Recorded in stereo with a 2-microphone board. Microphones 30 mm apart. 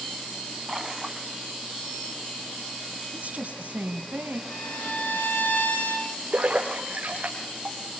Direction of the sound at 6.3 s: 45° right (ahead or behind).